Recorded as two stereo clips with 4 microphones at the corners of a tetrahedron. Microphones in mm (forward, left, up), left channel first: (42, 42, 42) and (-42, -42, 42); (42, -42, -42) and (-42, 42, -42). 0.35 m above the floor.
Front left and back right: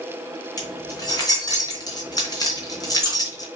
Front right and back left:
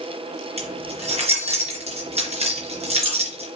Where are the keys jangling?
105° left, 3 m.